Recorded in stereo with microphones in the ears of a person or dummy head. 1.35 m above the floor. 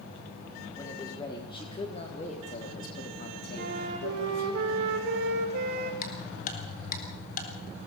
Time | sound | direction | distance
0.8 | a man speaking | 20° left (ahead or behind) | 4 m
3.6 | a flute | 65° right (ahead or behind) | 5.5 m
6.0 | ticking | 50° left (ahead or behind) | 4 m